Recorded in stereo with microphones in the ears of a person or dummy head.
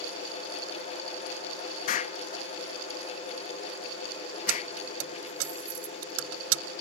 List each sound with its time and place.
1.9 s an explosion: 50° left (ahead or behind)
4.5 s keys jangling: 80° right